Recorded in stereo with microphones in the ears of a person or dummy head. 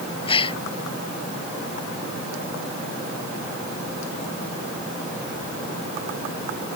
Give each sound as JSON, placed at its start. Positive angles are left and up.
{"t": 0.3, "sound": "a gasp", "side_deg": 30}